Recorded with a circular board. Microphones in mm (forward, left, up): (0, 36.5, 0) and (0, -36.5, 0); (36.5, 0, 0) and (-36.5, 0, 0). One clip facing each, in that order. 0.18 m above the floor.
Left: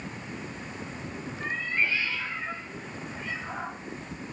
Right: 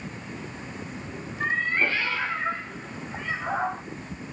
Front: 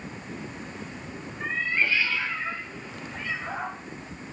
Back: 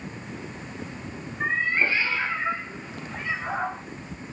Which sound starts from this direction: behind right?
A cat meowing, at 1.4 s.